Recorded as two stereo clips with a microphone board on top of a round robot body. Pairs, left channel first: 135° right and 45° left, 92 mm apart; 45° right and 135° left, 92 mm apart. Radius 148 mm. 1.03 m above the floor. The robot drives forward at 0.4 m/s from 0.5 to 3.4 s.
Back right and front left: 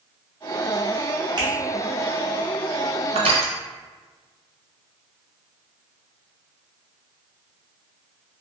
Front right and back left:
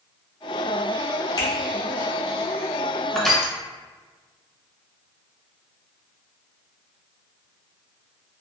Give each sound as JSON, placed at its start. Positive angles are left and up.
{"t": 1.4, "sound": "a finger snap", "azimuth_deg": 0, "distance_m": 1.1}
{"t": 3.1, "sound": "crushing", "azimuth_deg": 40, "distance_m": 0.6}